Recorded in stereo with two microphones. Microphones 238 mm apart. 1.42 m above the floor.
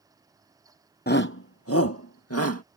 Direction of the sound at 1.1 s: 40° left (ahead or behind).